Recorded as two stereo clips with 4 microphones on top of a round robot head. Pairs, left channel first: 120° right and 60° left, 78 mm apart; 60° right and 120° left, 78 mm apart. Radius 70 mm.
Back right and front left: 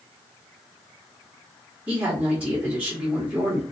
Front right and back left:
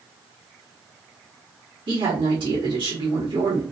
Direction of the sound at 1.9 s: 140° left.